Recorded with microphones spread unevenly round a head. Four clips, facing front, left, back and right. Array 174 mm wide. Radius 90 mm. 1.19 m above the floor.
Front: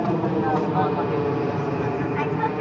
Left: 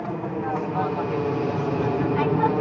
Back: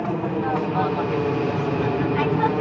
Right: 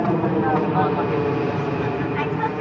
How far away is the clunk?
No clunk in this recording.